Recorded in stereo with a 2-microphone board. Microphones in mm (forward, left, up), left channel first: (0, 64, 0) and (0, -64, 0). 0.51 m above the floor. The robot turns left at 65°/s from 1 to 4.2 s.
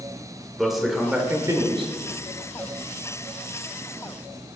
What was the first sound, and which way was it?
A man speaking, straight ahead.